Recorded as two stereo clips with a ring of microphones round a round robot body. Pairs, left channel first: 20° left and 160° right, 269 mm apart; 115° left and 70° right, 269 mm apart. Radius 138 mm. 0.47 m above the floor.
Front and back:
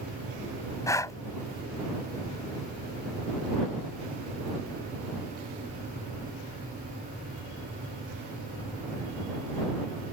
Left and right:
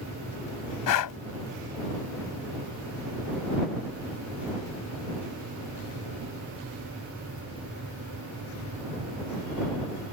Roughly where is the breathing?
Left.